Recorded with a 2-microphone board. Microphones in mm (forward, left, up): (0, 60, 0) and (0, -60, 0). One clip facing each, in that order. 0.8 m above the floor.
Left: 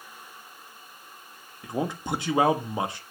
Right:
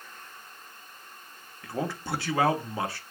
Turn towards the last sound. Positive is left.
turn(degrees=20)  # may be behind; listen again after turning